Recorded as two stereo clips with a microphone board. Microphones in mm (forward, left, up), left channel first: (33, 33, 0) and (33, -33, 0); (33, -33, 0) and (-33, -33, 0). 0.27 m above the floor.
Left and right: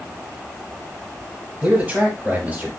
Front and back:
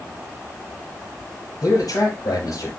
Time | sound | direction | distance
1.6 | a man speaking | 15° right | 4.5 m